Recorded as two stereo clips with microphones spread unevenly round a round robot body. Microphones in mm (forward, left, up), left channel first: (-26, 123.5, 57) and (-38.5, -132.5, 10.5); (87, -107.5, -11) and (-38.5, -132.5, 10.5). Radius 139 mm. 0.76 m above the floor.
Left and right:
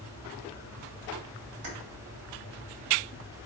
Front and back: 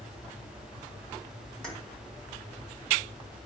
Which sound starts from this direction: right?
Keys jangling, at 1.6 s.